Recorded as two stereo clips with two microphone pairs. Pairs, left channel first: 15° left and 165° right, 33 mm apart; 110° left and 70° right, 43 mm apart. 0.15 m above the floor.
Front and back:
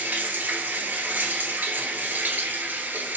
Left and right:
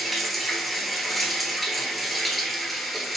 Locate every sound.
0.0 s running water: 160° right, 1.0 m